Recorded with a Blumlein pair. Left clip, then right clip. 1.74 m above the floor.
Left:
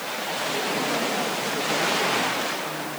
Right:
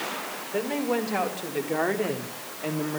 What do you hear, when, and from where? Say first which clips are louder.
0.5 s a woman speaking: right 1 dB; 20° right, 5 m; by 3.0 s 35° right, 3.5 m